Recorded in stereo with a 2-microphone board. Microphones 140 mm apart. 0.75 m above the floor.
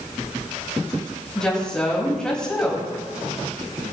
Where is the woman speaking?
5° left (ahead or behind), 4 m.